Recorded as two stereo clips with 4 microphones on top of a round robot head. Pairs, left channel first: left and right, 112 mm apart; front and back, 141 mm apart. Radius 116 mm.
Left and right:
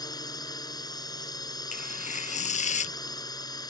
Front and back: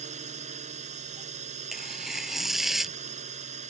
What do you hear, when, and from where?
0.0 s a drone: 145° left
1.7 s tearing paper: 90° left